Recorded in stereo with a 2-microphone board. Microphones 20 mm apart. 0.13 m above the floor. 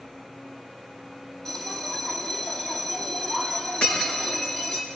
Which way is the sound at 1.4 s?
30° left (ahead or behind).